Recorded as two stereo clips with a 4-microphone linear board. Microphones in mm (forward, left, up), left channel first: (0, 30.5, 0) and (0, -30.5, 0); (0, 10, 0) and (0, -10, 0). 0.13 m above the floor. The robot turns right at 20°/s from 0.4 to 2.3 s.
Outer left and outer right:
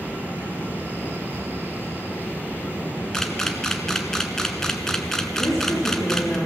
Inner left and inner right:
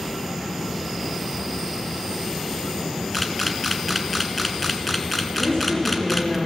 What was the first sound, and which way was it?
A camera shutter, 10° left (ahead or behind).